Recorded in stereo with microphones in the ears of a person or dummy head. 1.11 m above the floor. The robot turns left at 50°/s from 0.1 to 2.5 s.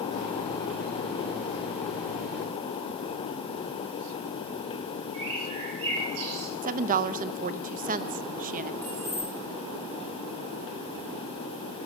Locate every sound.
5.1 s a bird: 90° right, 8 m
6.6 s a woman speaking: 45° right (ahead or behind), 0.7 m
8.8 s keys jangling: 10° left (ahead or behind), 7 m